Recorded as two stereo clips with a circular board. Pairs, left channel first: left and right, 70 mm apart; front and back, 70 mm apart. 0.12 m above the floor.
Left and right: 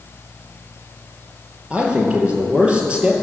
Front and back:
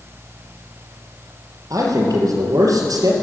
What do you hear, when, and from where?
1.7 s a man speaking: 165° right, 3 m